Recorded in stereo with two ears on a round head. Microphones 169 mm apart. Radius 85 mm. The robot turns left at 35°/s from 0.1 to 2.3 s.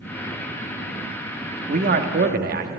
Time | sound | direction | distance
1.7 | a man speaking | 45° right (ahead or behind) | 1.0 m